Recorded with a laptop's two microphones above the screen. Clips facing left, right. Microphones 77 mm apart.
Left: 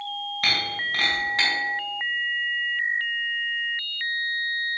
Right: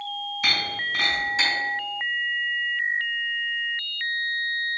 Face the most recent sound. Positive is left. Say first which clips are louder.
# even
turn(degrees=70)  # may be behind; listen again after turning